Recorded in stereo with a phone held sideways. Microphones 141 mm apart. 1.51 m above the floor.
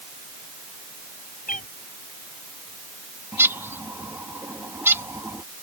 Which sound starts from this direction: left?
A cat meowing, at 1.5 s.